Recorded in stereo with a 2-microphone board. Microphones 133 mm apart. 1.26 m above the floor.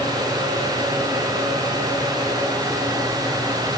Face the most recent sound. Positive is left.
No sound to turn to.